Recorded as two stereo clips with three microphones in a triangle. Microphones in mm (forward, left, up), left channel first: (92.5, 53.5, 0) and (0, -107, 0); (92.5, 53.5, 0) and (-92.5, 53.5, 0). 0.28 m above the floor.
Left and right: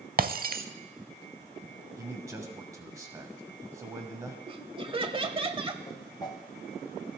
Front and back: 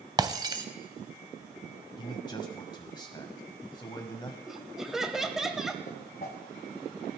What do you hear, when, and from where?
0.2 s breaking glass: 120° right, 0.7 m
2.0 s a man speaking: 55° right, 1.3 m
4.5 s laughter: 95° right, 1.1 m
5.8 s a whoosh: 5° right, 1.3 m